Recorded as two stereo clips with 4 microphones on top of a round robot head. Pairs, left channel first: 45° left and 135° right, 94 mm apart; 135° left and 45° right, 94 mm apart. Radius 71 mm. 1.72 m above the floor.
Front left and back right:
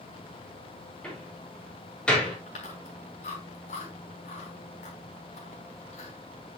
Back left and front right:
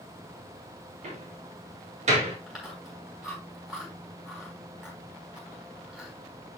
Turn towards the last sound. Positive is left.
turn(degrees=40)